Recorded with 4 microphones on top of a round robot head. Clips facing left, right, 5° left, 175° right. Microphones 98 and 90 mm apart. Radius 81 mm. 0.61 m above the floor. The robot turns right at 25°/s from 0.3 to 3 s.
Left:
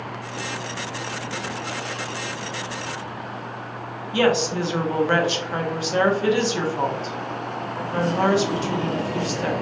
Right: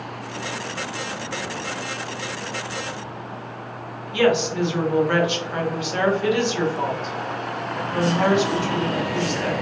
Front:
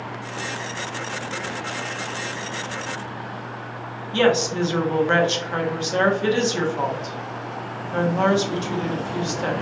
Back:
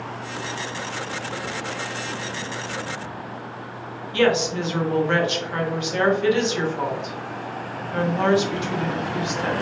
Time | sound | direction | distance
4.1 | a woman speaking | 50° left | 1.1 m